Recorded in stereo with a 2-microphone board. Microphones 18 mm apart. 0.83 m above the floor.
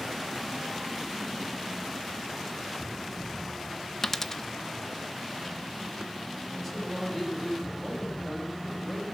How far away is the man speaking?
About 6 m.